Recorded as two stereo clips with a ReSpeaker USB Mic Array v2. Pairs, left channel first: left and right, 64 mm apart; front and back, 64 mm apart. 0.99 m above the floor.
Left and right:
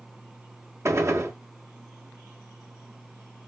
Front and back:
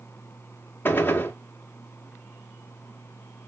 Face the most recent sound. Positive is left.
turn(degrees=-55)